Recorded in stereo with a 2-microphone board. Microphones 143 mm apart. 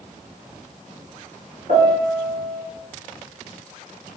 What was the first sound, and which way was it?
A piano, 65° right (ahead or behind).